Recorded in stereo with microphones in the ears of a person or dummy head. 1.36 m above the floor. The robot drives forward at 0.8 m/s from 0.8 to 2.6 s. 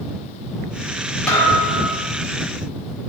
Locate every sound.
1.3 s a thud: 10° left (ahead or behind), 1.2 m